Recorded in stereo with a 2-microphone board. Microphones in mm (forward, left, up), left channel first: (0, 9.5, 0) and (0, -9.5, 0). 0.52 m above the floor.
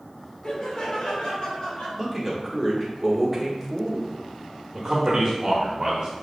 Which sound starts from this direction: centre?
A man speaking, at 2.0 s.